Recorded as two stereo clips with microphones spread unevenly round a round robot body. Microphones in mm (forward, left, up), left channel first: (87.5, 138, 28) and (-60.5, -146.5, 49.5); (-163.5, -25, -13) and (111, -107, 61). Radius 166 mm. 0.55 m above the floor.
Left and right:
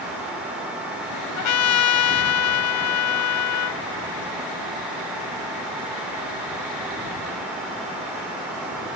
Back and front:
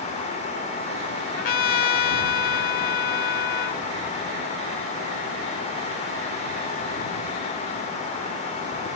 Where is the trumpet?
100° left.